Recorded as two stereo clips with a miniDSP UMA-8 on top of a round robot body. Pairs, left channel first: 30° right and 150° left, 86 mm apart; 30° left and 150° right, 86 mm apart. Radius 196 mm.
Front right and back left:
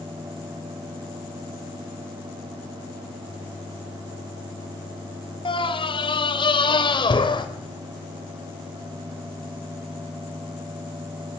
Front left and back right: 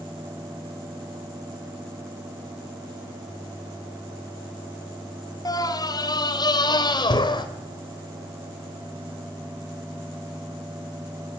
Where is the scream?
15° right, 2.5 m; by 7.5 s straight ahead, 3.5 m.